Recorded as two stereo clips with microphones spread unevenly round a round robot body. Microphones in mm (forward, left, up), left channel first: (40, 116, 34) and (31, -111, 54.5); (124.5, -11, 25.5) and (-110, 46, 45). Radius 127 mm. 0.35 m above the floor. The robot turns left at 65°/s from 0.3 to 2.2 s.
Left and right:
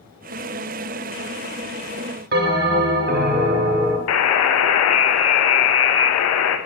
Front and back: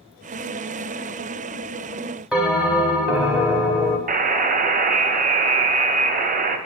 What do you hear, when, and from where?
2.3 s a bell: 105° right, 0.8 m
4.1 s a buzzer: 110° left, 0.5 m